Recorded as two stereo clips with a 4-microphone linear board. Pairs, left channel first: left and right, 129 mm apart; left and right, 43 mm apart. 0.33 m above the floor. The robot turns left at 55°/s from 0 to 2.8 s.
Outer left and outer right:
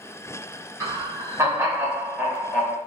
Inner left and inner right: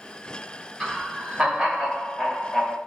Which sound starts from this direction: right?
Laughter, at 0.8 s.